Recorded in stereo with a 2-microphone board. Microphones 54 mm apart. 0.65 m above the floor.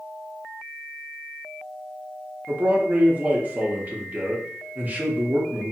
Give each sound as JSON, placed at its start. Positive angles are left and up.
{"t": 2.5, "sound": "a man speaking", "side_deg": -30, "distance_m": 0.7}